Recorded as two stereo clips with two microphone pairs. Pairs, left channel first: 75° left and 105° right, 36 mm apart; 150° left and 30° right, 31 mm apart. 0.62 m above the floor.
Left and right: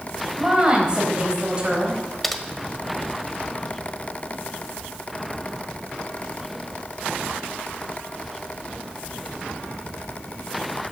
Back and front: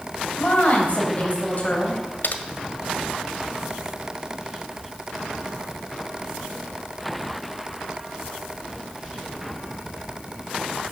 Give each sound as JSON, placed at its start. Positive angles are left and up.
{"t": 0.4, "sound": "a woman speaking", "azimuth_deg": -170, "distance_m": 4.0}
{"t": 2.2, "sound": "typing on a keyboard", "azimuth_deg": 160, "distance_m": 1.1}